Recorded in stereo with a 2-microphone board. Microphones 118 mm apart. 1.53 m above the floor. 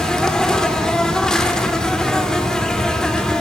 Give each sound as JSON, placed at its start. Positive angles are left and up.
{"t": 0.0, "sound": "an insect", "side_deg": 5, "distance_m": 2.5}